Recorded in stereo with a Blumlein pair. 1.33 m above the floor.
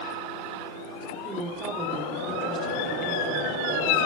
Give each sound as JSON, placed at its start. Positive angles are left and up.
{"t": 1.2, "sound": "a woman speaking", "azimuth_deg": -20, "distance_m": 3.5}